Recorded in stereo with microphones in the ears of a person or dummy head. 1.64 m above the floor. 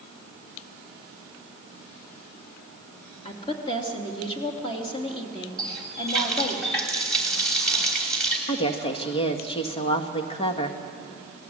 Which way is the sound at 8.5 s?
35° left (ahead or behind).